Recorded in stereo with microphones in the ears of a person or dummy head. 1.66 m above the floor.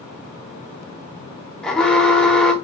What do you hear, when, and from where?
1.6 s an alarm: 5° left (ahead or behind), 0.7 m